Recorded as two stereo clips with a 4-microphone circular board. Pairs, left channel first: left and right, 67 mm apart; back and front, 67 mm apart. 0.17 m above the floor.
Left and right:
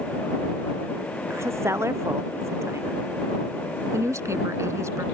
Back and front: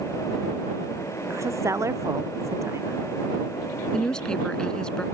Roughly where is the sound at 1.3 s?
Ahead right.